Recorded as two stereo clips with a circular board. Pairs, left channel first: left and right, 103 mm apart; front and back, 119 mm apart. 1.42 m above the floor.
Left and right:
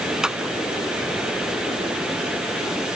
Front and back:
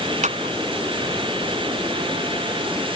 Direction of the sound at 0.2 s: 175° right.